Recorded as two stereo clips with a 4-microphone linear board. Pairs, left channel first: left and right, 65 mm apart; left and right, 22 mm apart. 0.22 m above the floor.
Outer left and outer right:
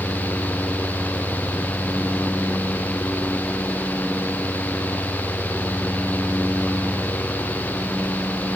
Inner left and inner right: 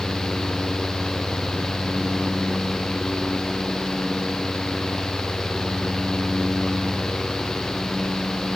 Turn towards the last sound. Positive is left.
No sound to turn to.